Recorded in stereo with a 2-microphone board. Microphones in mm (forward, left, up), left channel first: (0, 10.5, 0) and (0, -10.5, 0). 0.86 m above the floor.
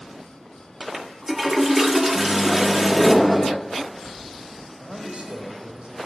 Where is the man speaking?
70° right (ahead or behind), 3.5 m.